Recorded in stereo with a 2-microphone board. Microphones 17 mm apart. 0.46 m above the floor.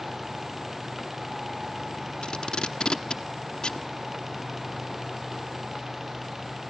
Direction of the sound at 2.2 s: 75° left (ahead or behind).